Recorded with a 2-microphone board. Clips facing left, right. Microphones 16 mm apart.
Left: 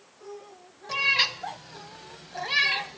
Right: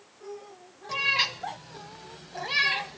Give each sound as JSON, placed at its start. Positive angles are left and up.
{"t": 0.9, "sound": "a cat meowing", "side_deg": 5, "distance_m": 1.0}